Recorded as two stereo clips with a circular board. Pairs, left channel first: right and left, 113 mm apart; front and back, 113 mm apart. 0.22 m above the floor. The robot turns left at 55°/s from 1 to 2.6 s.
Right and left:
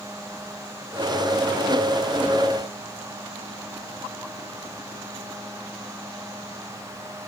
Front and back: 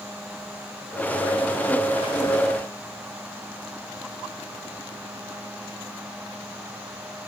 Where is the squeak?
I don't hear a squeak.